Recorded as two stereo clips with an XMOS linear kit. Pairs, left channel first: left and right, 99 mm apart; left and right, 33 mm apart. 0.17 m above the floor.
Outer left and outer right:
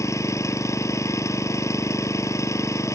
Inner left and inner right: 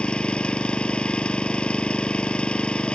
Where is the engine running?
30° left (ahead or behind).